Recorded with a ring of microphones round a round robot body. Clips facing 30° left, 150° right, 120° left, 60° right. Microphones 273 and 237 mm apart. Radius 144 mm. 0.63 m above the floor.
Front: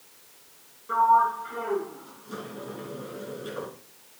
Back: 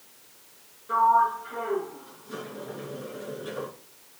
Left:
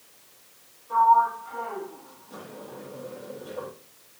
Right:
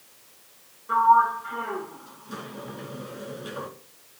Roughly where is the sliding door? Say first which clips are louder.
Even, even; ahead right.